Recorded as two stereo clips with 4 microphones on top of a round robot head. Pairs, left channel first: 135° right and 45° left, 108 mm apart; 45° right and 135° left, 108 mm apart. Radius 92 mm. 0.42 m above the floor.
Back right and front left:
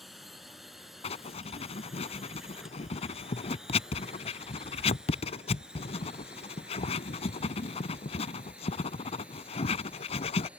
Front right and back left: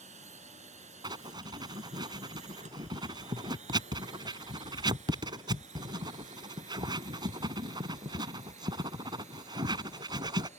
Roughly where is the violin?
No violin in this recording.